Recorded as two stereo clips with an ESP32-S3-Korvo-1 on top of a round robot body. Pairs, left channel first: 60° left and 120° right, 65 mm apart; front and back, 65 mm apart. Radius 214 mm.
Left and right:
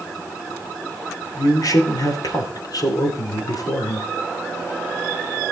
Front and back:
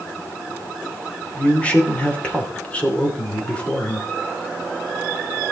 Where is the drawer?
I don't hear a drawer.